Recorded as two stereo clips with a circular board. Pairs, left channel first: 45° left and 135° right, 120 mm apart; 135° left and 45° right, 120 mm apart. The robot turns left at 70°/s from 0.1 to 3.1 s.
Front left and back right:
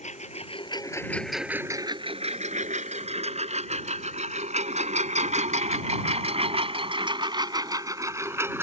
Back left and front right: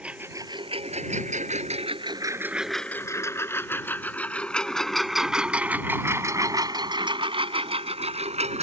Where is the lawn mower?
35° left; by 8.6 s 65° right.